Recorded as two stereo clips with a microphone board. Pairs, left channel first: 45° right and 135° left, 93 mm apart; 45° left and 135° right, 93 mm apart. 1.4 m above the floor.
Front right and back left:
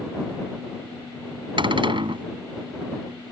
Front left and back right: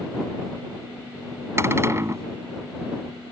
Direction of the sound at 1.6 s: 165° left.